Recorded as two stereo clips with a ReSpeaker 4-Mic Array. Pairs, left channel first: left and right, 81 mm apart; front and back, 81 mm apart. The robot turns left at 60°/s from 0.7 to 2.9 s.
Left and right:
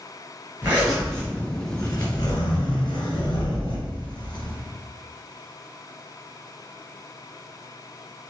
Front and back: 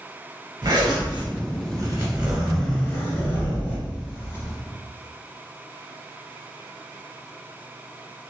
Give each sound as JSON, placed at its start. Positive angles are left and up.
{"t": 0.6, "sound": "a zipper", "azimuth_deg": -155, "distance_m": 2.0}